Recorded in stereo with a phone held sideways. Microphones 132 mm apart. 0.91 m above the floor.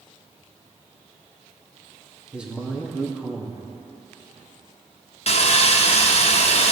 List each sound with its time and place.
2.3 s a man speaking: 10° right (ahead or behind), 1.8 m
5.3 s sawing: 50° left (ahead or behind), 0.9 m